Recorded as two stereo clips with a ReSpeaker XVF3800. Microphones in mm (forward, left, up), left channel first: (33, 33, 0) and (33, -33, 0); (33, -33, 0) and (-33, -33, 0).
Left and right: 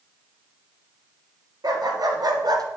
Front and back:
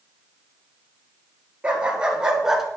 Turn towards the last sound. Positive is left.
turn(degrees=-95)